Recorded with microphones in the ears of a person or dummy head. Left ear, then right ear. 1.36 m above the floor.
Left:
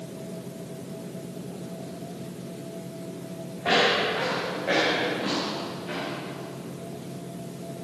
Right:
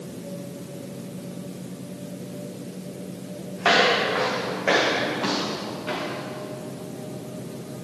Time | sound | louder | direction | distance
3.6 | footsteps | right 3 dB | 55° right (ahead or behind) | 3.5 m